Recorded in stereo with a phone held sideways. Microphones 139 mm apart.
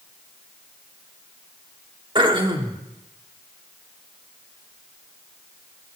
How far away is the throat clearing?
About 1.3 m.